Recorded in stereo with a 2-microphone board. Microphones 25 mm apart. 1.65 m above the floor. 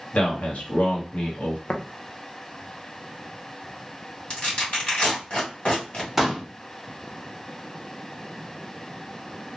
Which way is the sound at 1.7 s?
70° left (ahead or behind).